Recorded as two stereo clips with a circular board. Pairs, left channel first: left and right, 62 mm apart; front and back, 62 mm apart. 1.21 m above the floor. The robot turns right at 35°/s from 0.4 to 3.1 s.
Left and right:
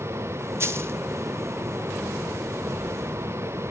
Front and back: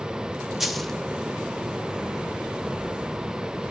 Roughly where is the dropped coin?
Right.